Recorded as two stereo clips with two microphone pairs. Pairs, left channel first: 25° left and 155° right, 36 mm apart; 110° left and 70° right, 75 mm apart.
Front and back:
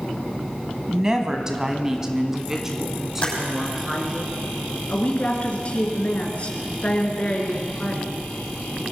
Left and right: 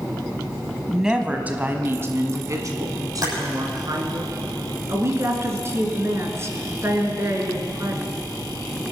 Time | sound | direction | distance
0.9 | a woman speaking | 145° right | 1.1 m
3.2 | typing on a keyboard | 35° right | 7.5 m
4.9 | a woman speaking | 25° right | 2.5 m